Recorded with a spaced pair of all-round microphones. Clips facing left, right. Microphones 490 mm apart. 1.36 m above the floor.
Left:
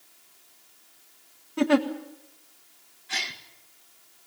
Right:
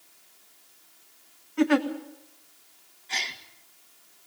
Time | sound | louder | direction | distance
1.6 | a giggle | even | 55° left (ahead or behind) | 1.6 m
3.1 | a gasp | left 1 dB | 30° left (ahead or behind) | 1.4 m